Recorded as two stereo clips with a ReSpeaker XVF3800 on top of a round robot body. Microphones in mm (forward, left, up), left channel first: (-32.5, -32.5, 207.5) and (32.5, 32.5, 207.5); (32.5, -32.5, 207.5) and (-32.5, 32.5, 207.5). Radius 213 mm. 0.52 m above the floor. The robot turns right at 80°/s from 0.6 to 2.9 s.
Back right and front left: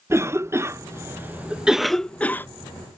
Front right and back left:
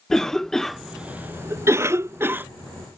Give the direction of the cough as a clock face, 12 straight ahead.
11 o'clock.